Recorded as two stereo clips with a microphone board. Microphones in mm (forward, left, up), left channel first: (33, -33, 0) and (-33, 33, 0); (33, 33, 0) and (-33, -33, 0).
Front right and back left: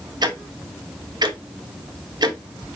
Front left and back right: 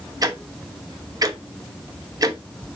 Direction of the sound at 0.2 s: 175° left.